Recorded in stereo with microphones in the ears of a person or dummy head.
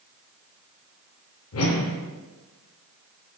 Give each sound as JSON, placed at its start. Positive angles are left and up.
{"t": 1.5, "sound": "a whoosh", "side_deg": 65, "distance_m": 0.5}